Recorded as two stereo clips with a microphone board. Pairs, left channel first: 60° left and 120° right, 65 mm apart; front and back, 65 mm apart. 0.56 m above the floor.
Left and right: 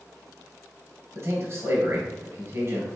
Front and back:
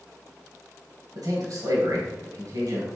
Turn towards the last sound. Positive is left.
turn(degrees=-160)